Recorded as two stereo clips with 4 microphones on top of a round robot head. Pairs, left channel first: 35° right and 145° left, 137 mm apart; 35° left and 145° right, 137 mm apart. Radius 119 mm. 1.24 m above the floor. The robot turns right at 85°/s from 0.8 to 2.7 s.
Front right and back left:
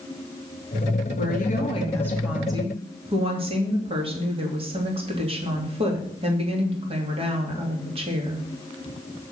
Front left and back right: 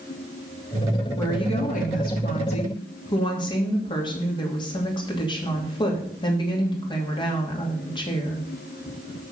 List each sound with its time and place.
1.2 s a woman speaking: 35° right, 2.5 m; by 8.5 s 95° left, 2.5 m